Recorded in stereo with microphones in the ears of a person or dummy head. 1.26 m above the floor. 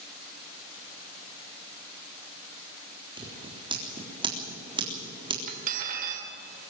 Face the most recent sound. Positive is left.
turn(degrees=-45)  # may be behind; listen again after turning